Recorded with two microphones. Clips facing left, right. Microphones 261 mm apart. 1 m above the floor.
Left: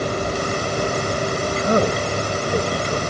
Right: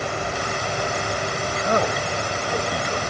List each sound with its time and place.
1.6 s a man speaking: 30° left (ahead or behind)